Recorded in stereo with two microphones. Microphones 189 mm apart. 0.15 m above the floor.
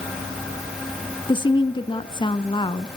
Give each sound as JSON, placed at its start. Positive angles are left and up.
{"t": 1.3, "sound": "a woman speaking", "side_deg": 25, "distance_m": 1.2}